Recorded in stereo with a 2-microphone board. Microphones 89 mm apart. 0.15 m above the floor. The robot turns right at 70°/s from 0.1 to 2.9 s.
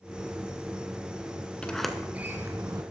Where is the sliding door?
15° left (ahead or behind), 0.7 m; by 2.8 s 45° right (ahead or behind), 0.7 m.